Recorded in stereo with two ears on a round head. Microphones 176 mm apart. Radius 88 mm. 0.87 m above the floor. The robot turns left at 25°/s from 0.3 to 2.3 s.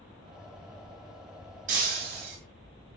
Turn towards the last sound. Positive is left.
turn(degrees=-55)  # may be behind; listen again after turning